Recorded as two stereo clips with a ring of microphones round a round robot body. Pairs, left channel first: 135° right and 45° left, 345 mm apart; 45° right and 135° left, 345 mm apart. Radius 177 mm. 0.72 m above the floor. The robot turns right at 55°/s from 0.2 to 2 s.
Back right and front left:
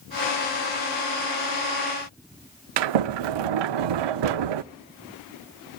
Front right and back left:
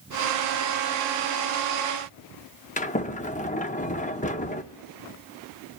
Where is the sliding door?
25° left, 0.6 m.